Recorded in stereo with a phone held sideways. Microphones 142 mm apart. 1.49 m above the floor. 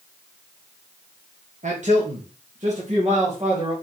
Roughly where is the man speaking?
Right.